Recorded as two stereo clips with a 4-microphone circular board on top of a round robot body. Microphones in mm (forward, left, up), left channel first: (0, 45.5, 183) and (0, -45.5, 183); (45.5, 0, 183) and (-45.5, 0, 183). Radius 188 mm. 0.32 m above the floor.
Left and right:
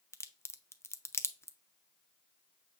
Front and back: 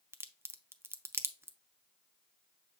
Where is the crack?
135° left, 0.8 m.